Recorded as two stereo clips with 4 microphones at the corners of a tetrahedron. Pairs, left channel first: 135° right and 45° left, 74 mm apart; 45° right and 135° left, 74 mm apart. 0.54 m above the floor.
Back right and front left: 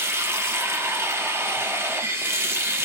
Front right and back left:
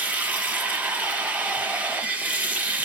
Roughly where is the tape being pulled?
No tape being pulled in this recording.